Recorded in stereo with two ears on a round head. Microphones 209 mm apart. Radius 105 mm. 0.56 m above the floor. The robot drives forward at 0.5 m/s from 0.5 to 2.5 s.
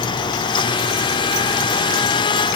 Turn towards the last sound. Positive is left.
No sound to turn to.